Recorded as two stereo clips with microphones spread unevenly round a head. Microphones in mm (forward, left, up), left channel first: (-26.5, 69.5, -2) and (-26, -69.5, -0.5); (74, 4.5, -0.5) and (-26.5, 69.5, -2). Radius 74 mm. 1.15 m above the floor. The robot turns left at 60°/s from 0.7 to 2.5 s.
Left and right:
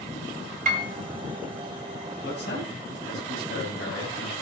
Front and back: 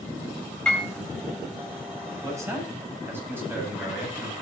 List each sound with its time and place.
0.7 s a piano: 115° right, 2.5 m; by 0.9 s 125° right, 2.5 m
2.2 s a man speaking: 90° left, 8 m; by 4.3 s 75° left, 8 m